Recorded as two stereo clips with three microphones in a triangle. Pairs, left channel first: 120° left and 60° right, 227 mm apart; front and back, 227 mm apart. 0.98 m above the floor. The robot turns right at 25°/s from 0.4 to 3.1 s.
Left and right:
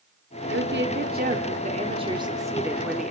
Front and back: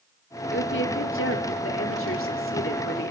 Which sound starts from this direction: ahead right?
A woman speaking, at 0.5 s.